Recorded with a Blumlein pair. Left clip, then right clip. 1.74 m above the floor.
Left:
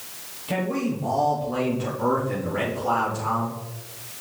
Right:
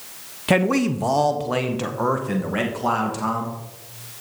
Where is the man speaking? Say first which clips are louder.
Right 7 dB; 55° right, 0.9 m; by 3.6 s 40° right, 3.5 m.